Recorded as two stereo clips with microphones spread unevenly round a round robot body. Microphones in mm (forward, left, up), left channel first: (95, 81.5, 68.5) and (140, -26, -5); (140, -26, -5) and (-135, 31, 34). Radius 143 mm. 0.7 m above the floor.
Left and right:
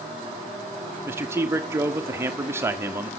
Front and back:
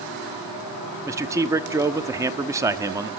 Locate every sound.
1.1 s a man speaking: 110° right, 1.1 m